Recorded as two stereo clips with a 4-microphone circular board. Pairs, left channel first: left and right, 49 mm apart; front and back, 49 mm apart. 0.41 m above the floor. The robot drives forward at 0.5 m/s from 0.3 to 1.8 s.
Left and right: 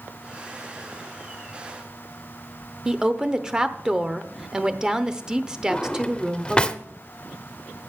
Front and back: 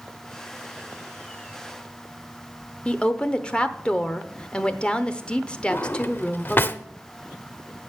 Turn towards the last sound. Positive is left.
turn(degrees=25)